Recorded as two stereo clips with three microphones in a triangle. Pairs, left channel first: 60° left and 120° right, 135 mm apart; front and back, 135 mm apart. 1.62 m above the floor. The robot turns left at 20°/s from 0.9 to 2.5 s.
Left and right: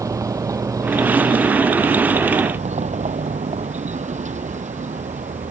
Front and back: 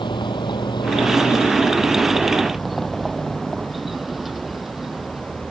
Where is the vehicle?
55° right; by 5.5 s 90° right.